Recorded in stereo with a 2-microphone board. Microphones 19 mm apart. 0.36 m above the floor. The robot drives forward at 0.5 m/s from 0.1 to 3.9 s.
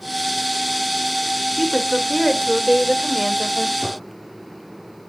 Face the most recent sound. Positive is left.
turn(degrees=-10)  # may be behind; listen again after turning